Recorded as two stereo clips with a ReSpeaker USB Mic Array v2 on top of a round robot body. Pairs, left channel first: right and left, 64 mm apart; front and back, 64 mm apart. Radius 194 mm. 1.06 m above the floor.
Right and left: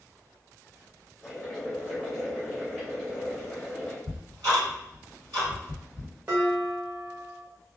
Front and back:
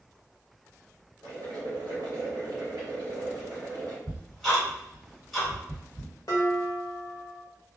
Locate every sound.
1.2 s boiling: 175° right, 0.6 m
4.1 s ticking: 85° left, 1.7 m
6.3 s dishes clattering: 30° left, 0.8 m